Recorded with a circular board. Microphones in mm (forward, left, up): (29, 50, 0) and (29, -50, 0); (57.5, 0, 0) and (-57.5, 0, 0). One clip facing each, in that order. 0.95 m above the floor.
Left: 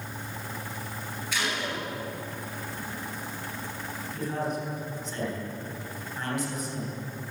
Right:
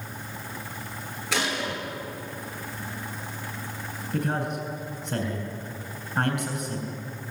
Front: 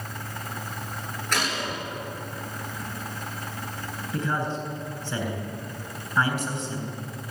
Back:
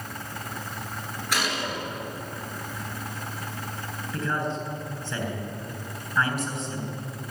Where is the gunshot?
100° right, 9.5 m.